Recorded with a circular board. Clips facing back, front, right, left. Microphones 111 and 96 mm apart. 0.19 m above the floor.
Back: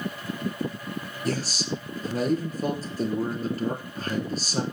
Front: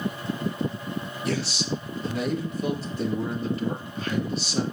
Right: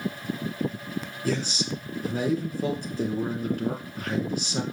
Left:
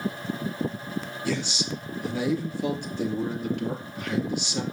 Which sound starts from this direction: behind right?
A man speaking, at 1.2 s.